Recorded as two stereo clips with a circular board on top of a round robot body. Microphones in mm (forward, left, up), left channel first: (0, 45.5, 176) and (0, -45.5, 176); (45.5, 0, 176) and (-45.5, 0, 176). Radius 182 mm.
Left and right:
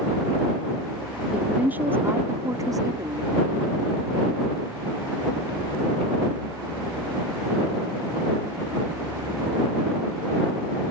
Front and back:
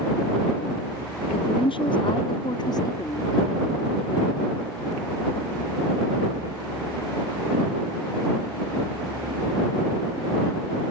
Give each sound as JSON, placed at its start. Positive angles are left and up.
{"t": 1.3, "sound": "a woman speaking", "azimuth_deg": -10}